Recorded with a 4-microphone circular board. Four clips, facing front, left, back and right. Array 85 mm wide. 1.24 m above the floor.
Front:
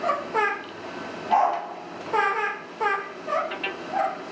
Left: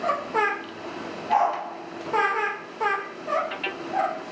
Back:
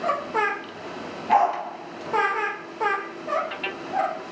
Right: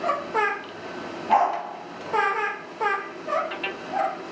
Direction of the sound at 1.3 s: 170° right.